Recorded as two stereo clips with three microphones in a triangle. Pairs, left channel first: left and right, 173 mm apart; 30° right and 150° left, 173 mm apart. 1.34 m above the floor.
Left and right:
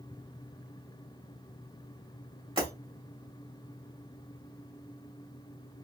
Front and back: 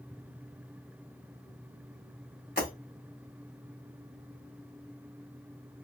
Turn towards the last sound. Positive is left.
turn(degrees=-35)